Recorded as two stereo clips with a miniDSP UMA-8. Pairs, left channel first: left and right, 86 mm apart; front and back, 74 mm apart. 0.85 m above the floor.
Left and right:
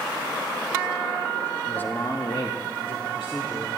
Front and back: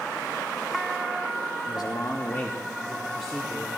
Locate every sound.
1.7 s a man speaking: 15° left, 1.1 m; by 3.7 s 100° left, 2 m